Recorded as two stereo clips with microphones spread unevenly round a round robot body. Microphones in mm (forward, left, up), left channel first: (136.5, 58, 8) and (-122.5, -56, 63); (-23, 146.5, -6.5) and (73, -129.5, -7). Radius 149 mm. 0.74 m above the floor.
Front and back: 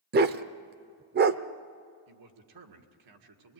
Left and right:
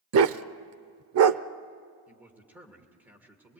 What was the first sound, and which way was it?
A dog barking, 110° right.